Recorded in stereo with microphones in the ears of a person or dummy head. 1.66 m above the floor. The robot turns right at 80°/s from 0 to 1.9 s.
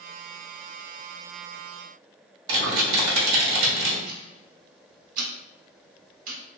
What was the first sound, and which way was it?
Typing on a keyboard, 75° right (ahead or behind).